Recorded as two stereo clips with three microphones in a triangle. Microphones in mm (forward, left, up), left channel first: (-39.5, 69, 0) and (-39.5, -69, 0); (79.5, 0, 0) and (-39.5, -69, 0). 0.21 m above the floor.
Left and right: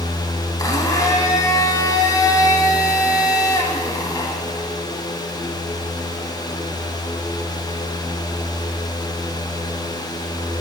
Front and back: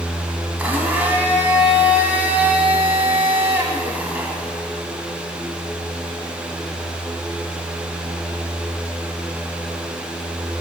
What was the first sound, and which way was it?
A blender, 140° left.